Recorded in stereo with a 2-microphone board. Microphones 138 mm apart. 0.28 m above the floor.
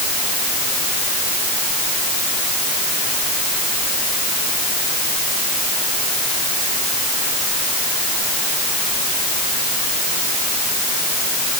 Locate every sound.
Only background noise.